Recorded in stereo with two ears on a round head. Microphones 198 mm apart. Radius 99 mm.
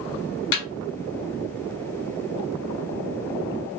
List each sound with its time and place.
0.5 s a snare drum: 85° left, 2 m